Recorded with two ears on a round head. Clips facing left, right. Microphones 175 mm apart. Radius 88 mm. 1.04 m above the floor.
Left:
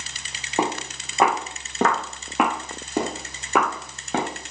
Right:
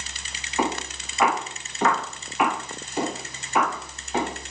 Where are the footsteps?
30° left (ahead or behind), 4.5 m; by 4.3 s 55° left (ahead or behind), 4.5 m.